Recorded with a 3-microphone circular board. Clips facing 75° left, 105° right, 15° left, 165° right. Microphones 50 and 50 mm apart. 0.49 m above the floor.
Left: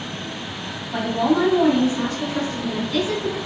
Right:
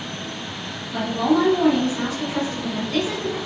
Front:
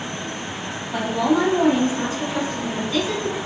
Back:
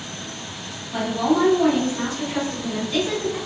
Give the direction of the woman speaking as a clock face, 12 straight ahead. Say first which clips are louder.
Even, front 1 dB; 10 o'clock.